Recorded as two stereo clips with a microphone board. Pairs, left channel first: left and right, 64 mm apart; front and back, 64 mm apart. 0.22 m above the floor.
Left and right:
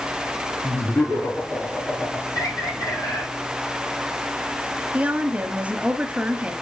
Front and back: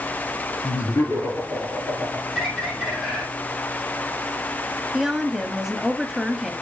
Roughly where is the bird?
Left.